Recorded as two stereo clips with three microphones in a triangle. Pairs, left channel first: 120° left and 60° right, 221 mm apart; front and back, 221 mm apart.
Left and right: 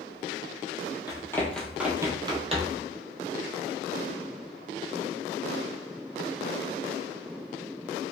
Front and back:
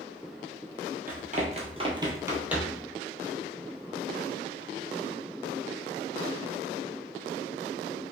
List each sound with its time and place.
1.1 s running footsteps: straight behind, 0.9 m; by 2.8 s 90° right, 1.0 m